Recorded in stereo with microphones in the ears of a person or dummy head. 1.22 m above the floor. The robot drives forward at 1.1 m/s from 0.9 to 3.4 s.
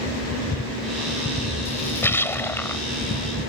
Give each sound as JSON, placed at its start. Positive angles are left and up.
{"t": 1.6, "sound": "a splash", "side_deg": 15}